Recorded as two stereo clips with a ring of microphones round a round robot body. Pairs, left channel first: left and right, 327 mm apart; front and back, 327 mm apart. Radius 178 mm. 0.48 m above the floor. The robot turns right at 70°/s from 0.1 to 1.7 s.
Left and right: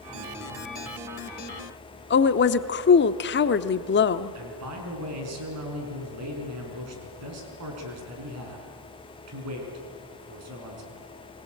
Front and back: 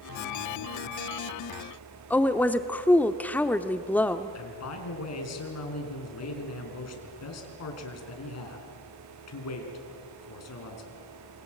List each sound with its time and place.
2.1 s a woman speaking: 80° left, 0.9 m
4.3 s a man speaking: 40° right, 5 m